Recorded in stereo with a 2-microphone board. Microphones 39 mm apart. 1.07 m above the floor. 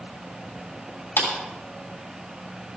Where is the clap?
80° left, 7 m.